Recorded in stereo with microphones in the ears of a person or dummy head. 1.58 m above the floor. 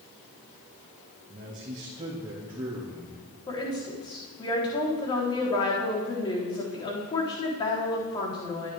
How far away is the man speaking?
About 2.0 m.